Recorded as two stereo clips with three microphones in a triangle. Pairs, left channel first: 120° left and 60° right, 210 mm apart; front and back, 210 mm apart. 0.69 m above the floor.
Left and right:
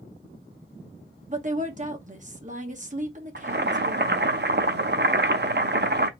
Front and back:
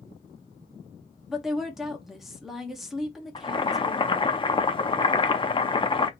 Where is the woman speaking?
90° right, 1.1 m.